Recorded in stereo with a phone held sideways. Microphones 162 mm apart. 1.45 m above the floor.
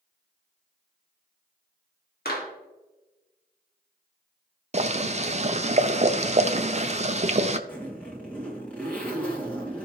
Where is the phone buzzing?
No phone buzzing in this recording.